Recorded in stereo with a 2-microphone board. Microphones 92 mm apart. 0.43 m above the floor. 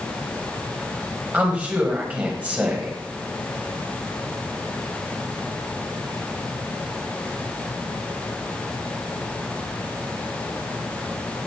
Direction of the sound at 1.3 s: 20° right (ahead or behind).